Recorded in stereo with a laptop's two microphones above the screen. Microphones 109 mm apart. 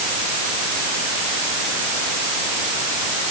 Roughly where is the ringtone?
I don't hear a ringtone.